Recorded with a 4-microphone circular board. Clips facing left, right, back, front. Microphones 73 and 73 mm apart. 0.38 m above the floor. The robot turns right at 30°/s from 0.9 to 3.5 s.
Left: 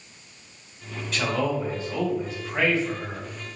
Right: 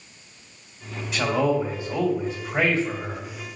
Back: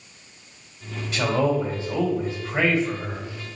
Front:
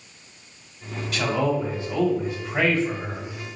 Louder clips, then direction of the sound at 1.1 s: Right 4 dB, back 2 dB; 165° right.